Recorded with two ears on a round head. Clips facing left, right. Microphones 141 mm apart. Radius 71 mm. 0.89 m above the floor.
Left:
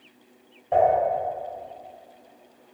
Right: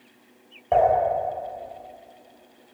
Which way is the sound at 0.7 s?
70° right (ahead or behind).